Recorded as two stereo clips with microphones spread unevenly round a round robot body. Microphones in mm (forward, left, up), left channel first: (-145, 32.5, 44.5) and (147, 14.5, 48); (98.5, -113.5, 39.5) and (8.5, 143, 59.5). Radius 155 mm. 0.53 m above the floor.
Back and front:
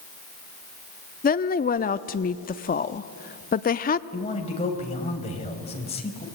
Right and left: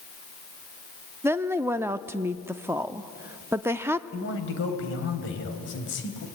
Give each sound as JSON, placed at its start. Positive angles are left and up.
{"t": 1.2, "sound": "a woman speaking", "azimuth_deg": -170, "distance_m": 0.7}
{"t": 4.1, "sound": "a man speaking", "azimuth_deg": -115, "distance_m": 3.5}